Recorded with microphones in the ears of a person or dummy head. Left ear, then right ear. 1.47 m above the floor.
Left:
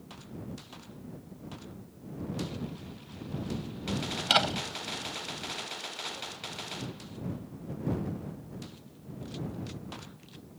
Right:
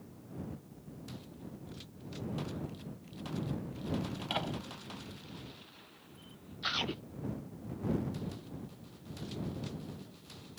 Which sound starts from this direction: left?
A door slam, at 4.2 s.